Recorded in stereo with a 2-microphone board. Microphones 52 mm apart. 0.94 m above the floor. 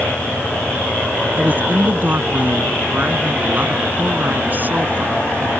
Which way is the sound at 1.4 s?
35° right (ahead or behind).